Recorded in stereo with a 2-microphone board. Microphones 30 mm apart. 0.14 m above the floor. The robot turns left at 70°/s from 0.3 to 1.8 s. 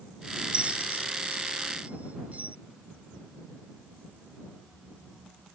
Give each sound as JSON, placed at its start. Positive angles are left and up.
{"t": 0.5, "sound": "a bell", "side_deg": -35}